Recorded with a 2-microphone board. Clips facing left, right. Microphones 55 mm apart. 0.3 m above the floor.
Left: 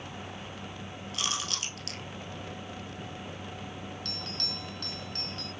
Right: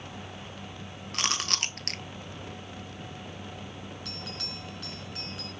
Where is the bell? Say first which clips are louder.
Left 1 dB; 10° right (ahead or behind), 3 m.